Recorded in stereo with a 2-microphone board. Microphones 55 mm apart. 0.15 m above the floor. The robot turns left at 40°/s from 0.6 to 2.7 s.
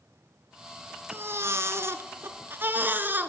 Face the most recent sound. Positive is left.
turn(degrees=-130)